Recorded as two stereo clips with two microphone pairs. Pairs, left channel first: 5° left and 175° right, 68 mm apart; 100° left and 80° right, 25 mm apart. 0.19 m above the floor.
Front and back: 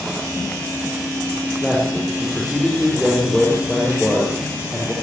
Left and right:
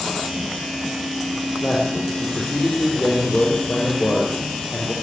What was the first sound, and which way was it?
A man speaking, 95° left.